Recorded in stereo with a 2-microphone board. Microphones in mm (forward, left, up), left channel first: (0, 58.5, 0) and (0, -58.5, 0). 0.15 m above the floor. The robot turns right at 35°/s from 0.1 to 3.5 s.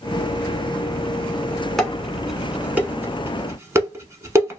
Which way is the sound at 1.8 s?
5° left (ahead or behind).